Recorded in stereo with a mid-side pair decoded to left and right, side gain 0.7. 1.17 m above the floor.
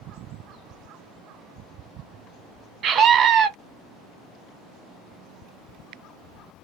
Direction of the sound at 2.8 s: 40° right.